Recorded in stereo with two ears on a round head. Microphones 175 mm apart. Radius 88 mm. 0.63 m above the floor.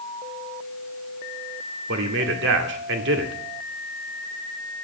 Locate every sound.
1.9 s a man speaking: 60° right (ahead or behind), 1.7 m